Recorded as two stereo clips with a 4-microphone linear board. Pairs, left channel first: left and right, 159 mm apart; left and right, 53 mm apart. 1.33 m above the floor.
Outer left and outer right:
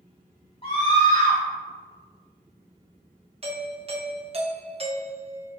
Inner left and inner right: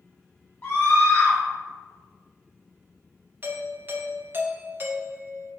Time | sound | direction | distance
0.6 | a scream | 35° left (ahead or behind) | 0.5 m
3.4 | a doorbell | 35° right (ahead or behind) | 0.5 m